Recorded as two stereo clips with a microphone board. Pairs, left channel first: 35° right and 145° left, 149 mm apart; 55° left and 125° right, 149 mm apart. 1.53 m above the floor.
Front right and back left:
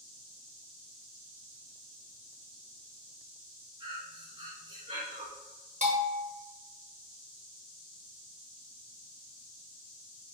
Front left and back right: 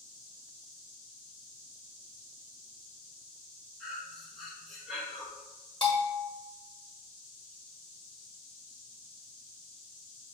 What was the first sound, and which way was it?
Breathing, 145° left.